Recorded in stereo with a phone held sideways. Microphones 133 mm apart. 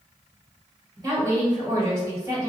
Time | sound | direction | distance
1.0 | a woman speaking | 30° right (ahead or behind) | 1.9 m